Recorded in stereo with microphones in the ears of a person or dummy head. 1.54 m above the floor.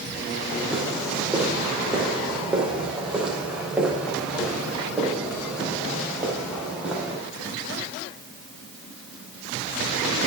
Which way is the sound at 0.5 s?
Centre (ahead or behind).